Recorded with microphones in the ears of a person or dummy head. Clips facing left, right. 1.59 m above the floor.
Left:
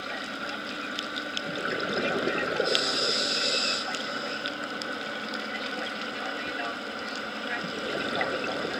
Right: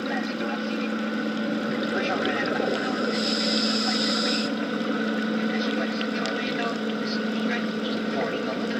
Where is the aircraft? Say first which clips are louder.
Right 10 dB; 65° right (ahead or behind); by 8.8 s 50° right (ahead or behind).